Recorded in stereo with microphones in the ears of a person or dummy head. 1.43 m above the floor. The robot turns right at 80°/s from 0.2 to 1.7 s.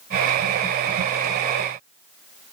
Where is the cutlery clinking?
No cutlery clinking in this recording.